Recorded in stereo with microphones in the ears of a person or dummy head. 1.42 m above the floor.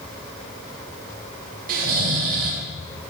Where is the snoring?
50° right (ahead or behind), 1.1 m.